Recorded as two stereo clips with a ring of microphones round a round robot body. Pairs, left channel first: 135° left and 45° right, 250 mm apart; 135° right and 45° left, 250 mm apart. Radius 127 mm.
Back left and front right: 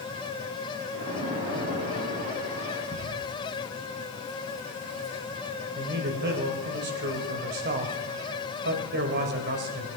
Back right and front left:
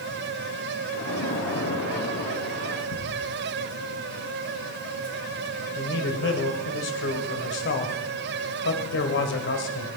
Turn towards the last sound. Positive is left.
turn(degrees=-95)